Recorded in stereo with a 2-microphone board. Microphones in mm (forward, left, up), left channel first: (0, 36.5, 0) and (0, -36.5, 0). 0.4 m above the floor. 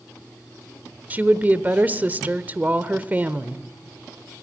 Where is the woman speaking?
25° right (ahead or behind), 0.9 m.